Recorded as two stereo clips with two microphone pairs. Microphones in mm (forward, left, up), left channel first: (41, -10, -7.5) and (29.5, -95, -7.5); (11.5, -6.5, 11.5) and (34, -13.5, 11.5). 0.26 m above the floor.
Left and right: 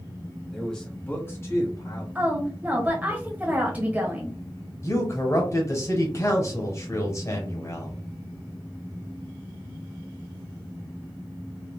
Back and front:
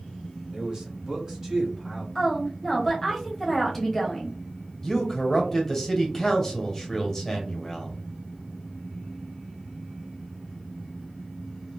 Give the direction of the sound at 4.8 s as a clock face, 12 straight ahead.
9 o'clock.